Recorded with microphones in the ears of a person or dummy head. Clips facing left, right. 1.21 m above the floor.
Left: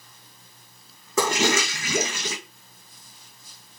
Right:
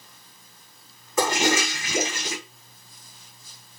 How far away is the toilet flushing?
About 1.6 m.